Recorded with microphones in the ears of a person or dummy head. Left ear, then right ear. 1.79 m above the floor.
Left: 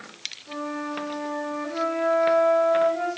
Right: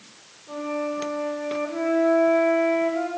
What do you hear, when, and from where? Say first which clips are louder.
0.5 s a flute: right 5 dB; 15° left (ahead or behind), 4 m